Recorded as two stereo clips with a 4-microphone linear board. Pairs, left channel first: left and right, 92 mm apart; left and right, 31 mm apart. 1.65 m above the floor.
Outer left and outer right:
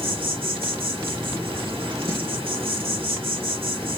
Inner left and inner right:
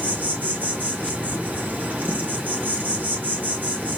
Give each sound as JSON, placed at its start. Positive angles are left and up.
{"t": 0.0, "sound": "an insect", "side_deg": -75, "distance_m": 1.8}